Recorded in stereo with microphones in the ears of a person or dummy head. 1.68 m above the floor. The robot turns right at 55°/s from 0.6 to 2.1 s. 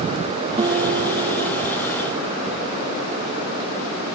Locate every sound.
0.6 s a guitar: 145° right; by 1.6 s 85° right